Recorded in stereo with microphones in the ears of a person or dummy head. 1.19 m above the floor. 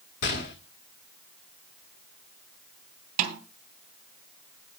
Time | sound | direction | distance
0.2 | a gunshot | 50° left (ahead or behind) | 1.5 m
3.2 | a snare drum | 45° right (ahead or behind) | 2.5 m